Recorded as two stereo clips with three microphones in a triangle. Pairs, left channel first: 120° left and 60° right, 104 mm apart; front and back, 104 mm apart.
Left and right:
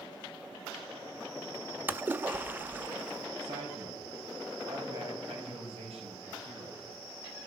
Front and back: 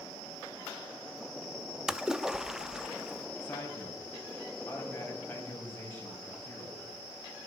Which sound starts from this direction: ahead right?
A man speaking, at 3.4 s.